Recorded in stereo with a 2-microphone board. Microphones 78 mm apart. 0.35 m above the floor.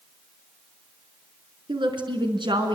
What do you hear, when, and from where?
1.7 s a woman speaking: 75° right (ahead or behind), 5.5 m